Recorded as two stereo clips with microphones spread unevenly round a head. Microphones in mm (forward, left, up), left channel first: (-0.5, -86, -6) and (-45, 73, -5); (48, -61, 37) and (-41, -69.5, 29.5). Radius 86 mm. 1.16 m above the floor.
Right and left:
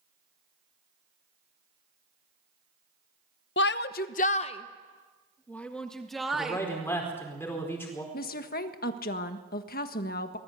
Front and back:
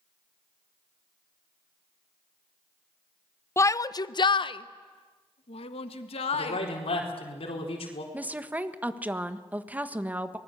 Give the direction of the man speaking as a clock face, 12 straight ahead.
12 o'clock.